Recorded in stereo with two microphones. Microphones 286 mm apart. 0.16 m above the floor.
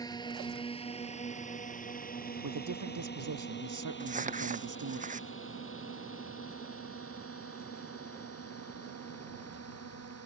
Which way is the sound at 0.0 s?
15° left (ahead or behind).